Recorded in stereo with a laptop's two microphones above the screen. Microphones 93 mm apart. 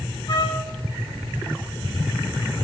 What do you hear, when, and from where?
0.3 s a trumpet: 45° left (ahead or behind), 1.4 m